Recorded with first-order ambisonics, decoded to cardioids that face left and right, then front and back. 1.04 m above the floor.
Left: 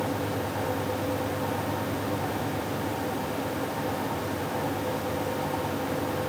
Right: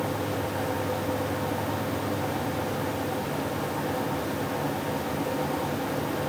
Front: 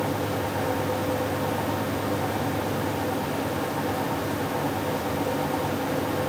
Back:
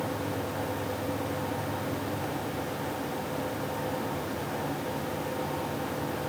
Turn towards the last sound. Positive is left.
No sound to turn to.